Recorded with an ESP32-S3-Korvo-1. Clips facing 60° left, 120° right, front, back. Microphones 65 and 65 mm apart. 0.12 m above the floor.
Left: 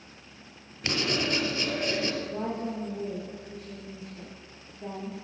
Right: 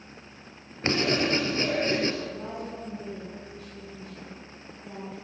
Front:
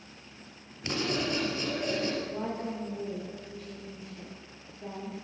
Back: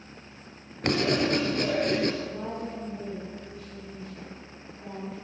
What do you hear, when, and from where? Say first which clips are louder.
0.8 s writing: right 4 dB, back 6 dB; 170° right, 2.5 m
2.2 s a woman speaking: left 3 dB, even; 65° left, 7.5 m